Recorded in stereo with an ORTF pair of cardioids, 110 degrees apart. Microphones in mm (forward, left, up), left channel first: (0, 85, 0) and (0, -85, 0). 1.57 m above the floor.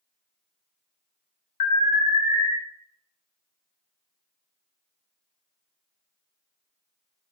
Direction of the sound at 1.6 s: 50° left.